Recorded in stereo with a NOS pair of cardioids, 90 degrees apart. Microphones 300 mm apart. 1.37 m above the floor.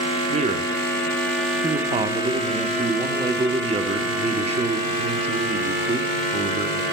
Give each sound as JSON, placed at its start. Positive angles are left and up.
{"t": 0.3, "sound": "a man speaking", "azimuth_deg": -20, "distance_m": 0.9}